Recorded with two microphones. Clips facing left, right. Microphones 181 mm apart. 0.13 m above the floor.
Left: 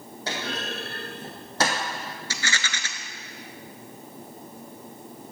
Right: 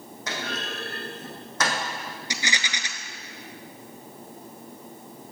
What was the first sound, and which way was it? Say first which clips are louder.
A clunk: left 1 dB; 30° left (ahead or behind).